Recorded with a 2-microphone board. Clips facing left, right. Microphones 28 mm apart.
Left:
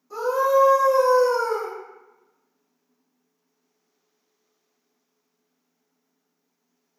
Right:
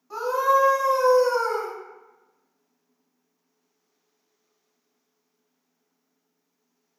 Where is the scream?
25° right (ahead or behind), 1.6 m.